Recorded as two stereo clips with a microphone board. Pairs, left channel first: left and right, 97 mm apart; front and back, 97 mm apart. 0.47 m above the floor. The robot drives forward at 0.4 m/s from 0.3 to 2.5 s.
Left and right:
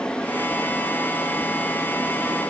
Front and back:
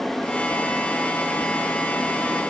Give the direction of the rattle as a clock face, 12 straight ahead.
No rattle in this recording.